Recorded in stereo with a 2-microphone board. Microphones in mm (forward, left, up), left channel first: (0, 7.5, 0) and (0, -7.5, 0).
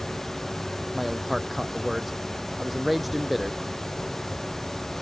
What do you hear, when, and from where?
0.9 s a man speaking: 10° right (ahead or behind); by 3.6 s 5° right (ahead or behind)